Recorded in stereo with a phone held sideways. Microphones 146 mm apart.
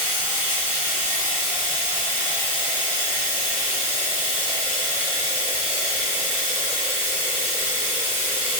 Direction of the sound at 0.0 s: 50° right (ahead or behind).